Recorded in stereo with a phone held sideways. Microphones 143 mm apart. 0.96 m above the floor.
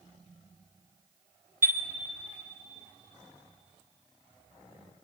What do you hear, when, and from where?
1.6 s a chime: 65° right (ahead or behind), 1.7 m